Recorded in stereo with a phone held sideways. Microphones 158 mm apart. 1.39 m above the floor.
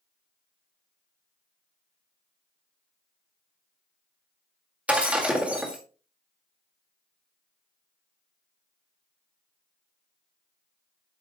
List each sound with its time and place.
4.9 s breaking glass: 5° right (ahead or behind), 1.7 m